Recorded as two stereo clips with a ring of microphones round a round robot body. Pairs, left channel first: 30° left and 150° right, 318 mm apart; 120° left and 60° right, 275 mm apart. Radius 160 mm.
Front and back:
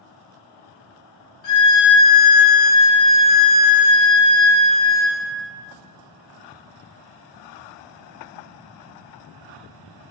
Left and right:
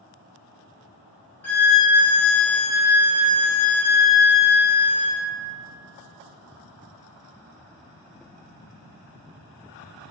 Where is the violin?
40° left, 0.8 m.